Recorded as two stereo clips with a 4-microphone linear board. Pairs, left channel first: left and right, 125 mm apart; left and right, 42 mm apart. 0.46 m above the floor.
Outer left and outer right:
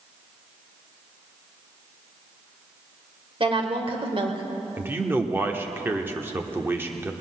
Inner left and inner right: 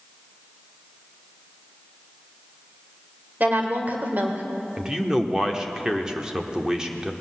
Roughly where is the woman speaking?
Right.